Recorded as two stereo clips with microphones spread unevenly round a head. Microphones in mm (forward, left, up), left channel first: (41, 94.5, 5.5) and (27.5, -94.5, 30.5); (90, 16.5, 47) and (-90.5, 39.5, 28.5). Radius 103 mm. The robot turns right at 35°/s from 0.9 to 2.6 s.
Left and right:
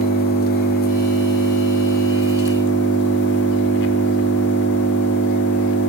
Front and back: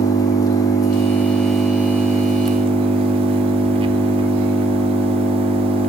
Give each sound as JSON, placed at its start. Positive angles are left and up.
{"t": 0.0, "sound": "an engine running", "azimuth_deg": 55, "distance_m": 1.1}